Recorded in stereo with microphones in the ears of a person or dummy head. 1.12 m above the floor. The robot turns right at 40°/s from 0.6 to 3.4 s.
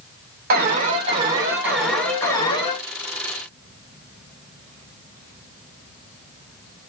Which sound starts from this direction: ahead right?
An alarm, at 0.5 s.